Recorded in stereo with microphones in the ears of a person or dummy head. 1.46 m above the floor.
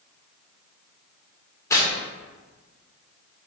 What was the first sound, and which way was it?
Tearing paper, 10° left (ahead or behind).